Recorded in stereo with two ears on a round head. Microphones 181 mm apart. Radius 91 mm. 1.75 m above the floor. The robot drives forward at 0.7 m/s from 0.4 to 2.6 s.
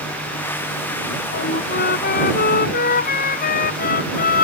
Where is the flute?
50° left (ahead or behind); by 4.4 s 45° left (ahead or behind).